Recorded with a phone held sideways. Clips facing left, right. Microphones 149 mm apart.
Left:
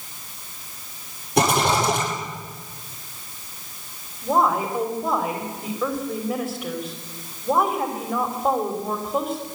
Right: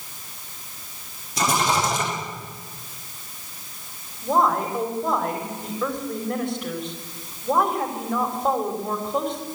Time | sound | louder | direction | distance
1.4 | a rattle | left 3 dB | 65° left (ahead or behind) | 9.5 m
4.2 | a woman speaking | even | 5° left (ahead or behind) | 3.5 m